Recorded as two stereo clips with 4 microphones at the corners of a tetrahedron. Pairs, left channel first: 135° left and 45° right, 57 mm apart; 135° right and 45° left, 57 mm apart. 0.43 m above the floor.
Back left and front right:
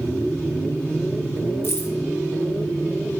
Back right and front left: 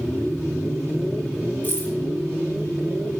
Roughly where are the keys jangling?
Behind.